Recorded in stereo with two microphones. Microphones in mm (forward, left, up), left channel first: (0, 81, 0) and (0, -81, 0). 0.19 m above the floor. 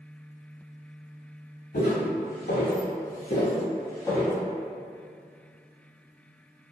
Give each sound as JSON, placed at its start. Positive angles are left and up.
{"t": 1.7, "sound": "footsteps", "side_deg": 80, "distance_m": 1.2}